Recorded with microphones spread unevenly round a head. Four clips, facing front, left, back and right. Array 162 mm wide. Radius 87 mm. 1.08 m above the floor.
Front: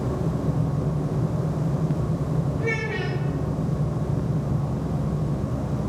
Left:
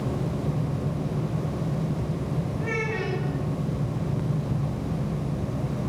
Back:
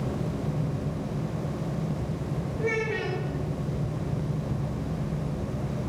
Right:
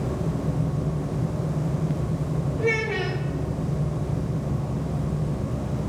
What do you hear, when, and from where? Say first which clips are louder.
2.6 s a child speaking: right 6 dB, front 1 dB; 110° right, 3 m